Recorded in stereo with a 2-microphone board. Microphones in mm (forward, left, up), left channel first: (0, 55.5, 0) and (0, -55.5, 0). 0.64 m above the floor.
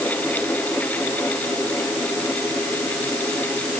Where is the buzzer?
I don't hear a buzzer.